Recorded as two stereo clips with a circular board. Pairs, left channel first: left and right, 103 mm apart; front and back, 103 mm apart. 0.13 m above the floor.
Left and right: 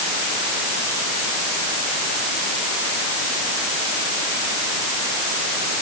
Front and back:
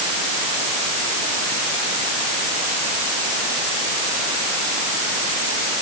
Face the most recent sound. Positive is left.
No sound to turn to.